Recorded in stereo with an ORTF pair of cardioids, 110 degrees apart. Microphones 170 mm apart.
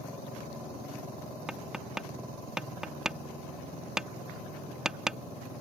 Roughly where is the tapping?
Ahead.